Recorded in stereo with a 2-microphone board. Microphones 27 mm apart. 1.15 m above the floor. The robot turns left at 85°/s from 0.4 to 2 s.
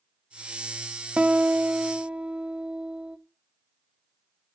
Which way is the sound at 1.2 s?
60° right.